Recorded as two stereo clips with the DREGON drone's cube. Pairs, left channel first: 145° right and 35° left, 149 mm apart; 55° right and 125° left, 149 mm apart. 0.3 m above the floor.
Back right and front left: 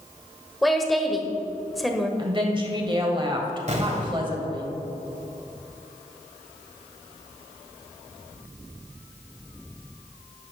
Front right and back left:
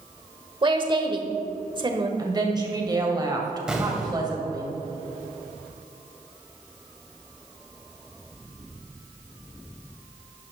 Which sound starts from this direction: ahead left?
An explosion, at 3.7 s.